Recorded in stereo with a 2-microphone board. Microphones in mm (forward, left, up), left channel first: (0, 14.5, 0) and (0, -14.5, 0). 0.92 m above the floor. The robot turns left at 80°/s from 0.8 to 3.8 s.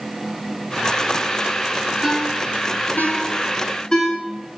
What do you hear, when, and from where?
2.0 s a ringtone: 5° left (ahead or behind), 6 m; by 4.1 s 35° left (ahead or behind), 6 m